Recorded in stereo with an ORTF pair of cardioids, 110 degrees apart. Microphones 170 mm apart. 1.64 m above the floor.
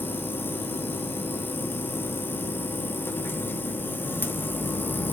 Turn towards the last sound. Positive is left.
turn(degrees=10)